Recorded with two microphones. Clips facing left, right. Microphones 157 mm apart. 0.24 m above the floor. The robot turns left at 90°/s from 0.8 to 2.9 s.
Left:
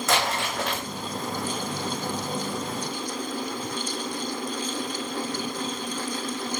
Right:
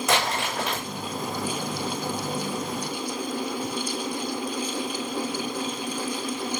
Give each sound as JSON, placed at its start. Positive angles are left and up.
{"t": 0.1, "sound": "crumpling", "side_deg": -15, "distance_m": 4.5}